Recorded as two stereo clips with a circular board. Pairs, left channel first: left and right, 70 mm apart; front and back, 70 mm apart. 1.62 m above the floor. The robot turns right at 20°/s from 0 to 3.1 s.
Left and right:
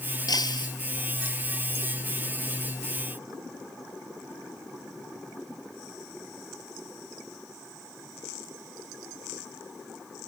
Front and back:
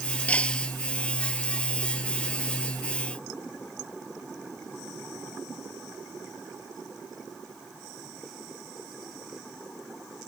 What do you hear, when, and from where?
0.3 s breaking glass: 70° left; by 0.7 s 80° left